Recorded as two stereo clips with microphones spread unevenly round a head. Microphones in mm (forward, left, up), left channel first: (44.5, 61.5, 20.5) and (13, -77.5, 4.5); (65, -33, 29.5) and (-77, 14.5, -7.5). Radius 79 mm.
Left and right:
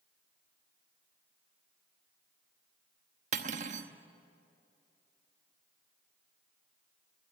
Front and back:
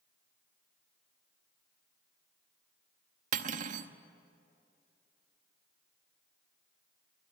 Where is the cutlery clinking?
155° right, 0.9 m.